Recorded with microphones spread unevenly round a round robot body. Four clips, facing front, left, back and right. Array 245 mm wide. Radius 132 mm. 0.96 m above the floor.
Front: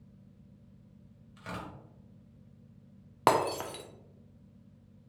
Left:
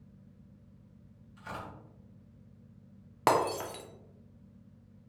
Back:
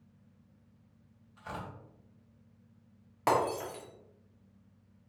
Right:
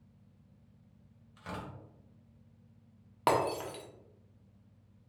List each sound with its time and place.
1.4 s tearing paper: 30° right, 1.6 m
3.3 s breaking glass: 20° left, 0.6 m